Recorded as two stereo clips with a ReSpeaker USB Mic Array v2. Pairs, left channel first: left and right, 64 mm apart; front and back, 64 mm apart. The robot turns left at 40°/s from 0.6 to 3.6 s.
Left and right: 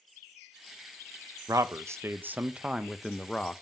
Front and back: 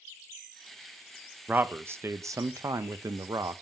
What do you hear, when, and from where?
1.5 s a man speaking: 115° right, 0.5 m; by 3.6 s 160° left, 0.5 m